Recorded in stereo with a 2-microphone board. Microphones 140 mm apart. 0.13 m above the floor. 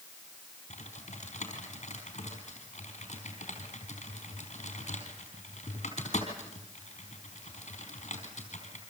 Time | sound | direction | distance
0.7 | typing on a keyboard | 55° left (ahead or behind) | 4.5 m